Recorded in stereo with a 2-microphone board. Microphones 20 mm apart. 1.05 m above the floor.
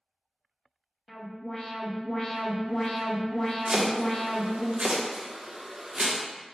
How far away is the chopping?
About 0.6 m.